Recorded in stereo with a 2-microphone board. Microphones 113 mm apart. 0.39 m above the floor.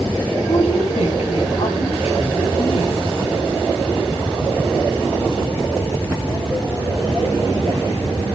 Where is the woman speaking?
70° left (ahead or behind), 3.5 m.